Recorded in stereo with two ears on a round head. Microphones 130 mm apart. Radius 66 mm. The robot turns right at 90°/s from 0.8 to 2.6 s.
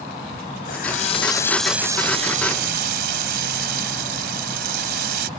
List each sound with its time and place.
0.7 s a running tap: 105° left; by 5.3 s 95° right